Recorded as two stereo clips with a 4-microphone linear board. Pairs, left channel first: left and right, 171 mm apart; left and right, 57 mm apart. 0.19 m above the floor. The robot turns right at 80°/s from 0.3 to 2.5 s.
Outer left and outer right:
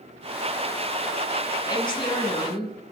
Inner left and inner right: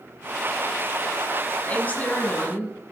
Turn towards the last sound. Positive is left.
turn(degrees=115)